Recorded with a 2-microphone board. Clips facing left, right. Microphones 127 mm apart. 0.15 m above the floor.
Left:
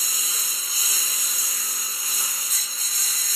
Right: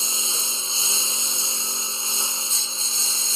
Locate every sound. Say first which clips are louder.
0.0 s a lawn mower: right 4 dB; 30° right (ahead or behind)